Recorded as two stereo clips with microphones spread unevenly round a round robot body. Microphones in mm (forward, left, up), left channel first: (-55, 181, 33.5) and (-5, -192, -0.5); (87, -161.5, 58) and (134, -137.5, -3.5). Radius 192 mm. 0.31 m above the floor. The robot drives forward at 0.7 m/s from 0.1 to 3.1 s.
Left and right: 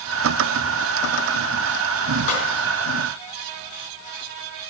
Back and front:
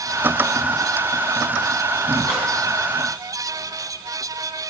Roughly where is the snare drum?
Behind left.